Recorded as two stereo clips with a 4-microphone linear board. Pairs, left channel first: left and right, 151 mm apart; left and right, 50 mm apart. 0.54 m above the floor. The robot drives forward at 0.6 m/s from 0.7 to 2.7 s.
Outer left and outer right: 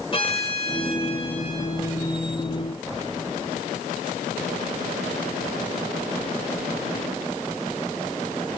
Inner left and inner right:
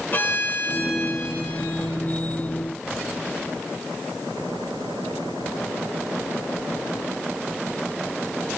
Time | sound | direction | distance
0.1 | a violin | 35° left (ahead or behind) | 1.3 m